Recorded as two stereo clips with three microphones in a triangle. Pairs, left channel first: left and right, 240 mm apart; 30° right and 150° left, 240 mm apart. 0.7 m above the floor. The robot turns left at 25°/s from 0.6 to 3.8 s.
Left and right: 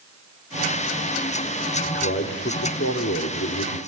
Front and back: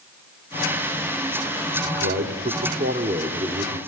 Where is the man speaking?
130° left, 1.5 m; by 3.8 s 80° left, 1.5 m.